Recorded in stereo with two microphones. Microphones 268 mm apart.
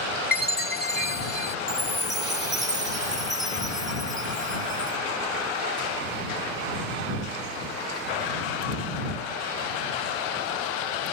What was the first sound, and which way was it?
A chime, 35° left (ahead or behind).